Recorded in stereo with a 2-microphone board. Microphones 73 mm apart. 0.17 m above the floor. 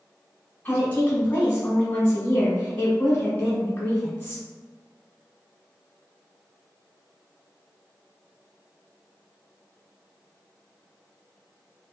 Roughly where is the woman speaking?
Left.